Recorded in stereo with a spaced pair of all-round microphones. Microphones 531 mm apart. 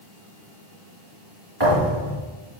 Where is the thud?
45° right (ahead or behind), 5 m.